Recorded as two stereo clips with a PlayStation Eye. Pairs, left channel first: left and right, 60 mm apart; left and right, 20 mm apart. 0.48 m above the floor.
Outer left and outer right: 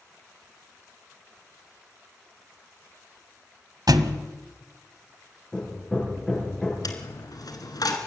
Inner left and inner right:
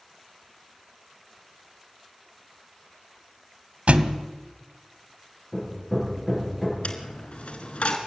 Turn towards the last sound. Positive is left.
turn(degrees=85)